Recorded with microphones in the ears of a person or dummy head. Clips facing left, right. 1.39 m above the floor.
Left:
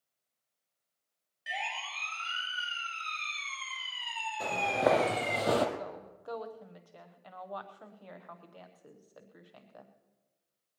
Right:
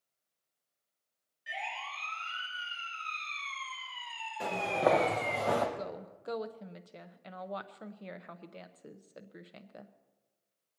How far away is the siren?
About 7 m.